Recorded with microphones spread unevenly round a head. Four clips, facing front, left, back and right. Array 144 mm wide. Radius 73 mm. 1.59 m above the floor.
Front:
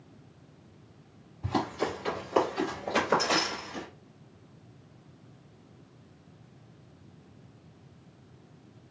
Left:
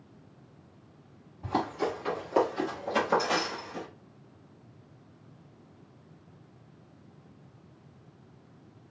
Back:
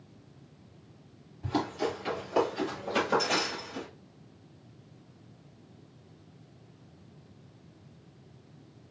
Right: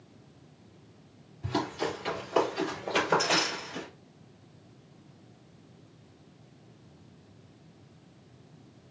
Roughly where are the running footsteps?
Left.